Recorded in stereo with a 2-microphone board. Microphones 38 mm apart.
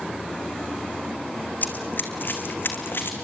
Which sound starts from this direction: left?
Running footsteps, at 1.6 s.